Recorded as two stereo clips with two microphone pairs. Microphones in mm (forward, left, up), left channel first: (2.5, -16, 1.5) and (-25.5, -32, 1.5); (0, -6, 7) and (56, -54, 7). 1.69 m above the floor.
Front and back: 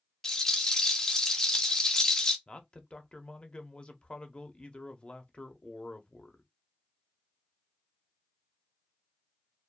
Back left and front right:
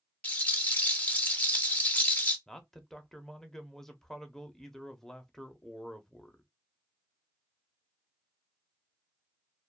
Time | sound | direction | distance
0.2 | a rattle | 85° left | 0.5 m
2.5 | a man speaking | 50° left | 0.5 m